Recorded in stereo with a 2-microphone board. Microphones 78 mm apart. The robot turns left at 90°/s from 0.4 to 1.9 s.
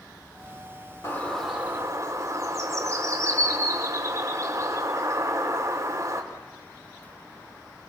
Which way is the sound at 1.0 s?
35° left.